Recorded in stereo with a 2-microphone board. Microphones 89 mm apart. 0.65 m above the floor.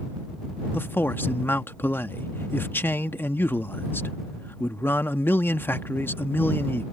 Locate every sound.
0.7 s a man speaking: 25° left (ahead or behind)